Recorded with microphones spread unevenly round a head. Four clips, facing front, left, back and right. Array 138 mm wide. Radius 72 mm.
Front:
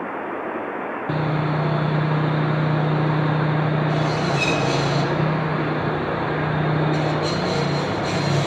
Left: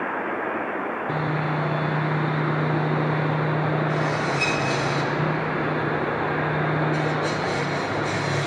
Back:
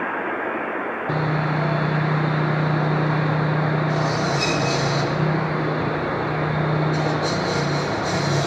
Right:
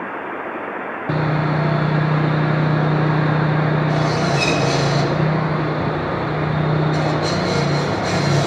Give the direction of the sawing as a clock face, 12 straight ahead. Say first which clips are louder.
Right 8 dB, front 1 dB; 3 o'clock.